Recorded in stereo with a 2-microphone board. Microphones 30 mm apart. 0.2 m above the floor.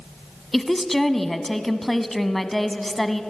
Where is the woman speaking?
10° left (ahead or behind), 1.3 m.